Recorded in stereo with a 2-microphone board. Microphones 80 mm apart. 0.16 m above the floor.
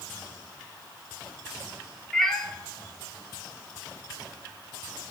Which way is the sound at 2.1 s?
5° left (ahead or behind).